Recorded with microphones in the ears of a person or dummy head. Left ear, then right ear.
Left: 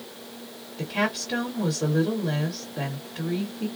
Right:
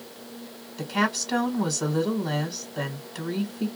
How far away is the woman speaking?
About 1.5 m.